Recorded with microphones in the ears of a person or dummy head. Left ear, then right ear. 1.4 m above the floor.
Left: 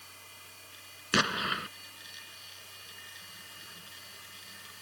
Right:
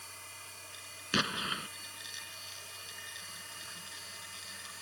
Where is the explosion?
20° left (ahead or behind).